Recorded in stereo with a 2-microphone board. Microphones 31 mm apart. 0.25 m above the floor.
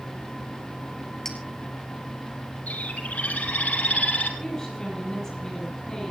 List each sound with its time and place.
1.2 s a clink: 15° left (ahead or behind), 3 m
2.7 s a bird: 60° left (ahead or behind), 2.5 m
4.4 s a woman speaking: 20° left (ahead or behind), 9 m